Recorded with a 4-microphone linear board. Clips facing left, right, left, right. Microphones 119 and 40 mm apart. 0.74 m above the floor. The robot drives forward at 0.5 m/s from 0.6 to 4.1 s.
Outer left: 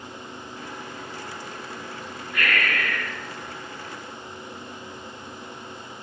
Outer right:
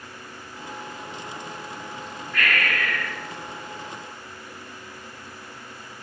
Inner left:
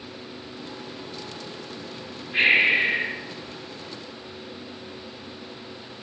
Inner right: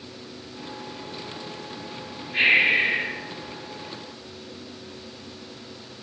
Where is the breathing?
10° left (ahead or behind), 1.8 m; by 3.1 s 5° left (ahead or behind), 2 m.